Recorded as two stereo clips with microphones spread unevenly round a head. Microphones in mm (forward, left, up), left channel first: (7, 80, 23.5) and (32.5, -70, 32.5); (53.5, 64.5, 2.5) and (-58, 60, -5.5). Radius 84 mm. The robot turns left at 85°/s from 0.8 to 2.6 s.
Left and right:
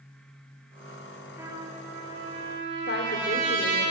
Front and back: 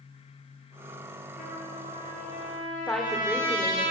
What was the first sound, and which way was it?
A trumpet, 5° right.